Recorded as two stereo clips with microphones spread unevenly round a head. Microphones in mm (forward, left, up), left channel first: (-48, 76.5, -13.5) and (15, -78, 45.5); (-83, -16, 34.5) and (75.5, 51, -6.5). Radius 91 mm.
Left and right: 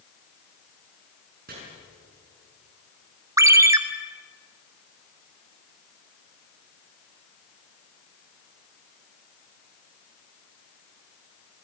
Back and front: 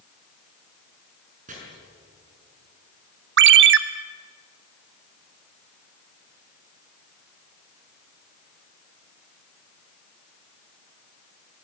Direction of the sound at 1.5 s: 30° right.